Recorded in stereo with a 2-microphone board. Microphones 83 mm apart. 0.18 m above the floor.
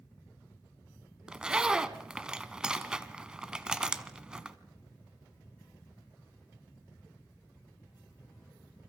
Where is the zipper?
10° right (ahead or behind), 1.3 m.